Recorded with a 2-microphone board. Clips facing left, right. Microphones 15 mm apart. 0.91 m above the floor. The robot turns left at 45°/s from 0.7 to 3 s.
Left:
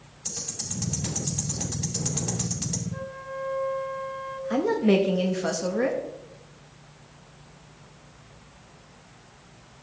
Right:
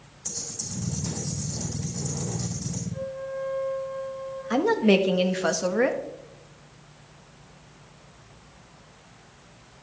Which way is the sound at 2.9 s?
55° left (ahead or behind).